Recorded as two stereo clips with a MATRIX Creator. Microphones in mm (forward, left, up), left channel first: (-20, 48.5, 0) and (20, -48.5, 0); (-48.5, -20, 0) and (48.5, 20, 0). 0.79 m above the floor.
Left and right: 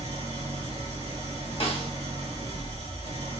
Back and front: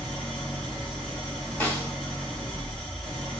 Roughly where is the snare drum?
Behind left.